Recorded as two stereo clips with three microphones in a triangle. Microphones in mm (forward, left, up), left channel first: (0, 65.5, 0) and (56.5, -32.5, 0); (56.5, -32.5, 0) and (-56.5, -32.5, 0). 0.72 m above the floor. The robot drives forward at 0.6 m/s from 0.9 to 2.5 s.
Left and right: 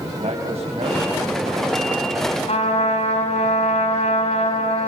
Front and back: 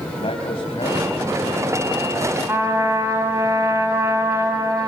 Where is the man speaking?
35° right, 4 m; by 2.4 s 45° right, 3 m.